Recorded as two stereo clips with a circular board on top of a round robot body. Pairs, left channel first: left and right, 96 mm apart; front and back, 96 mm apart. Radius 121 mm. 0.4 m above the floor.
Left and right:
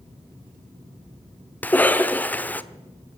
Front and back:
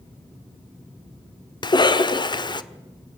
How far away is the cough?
About 1.5 m.